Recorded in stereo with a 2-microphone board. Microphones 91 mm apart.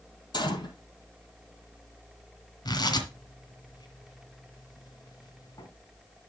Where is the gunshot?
55° left (ahead or behind), 2 m.